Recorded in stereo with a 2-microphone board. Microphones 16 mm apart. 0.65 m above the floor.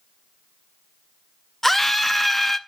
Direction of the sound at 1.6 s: 20° left (ahead or behind).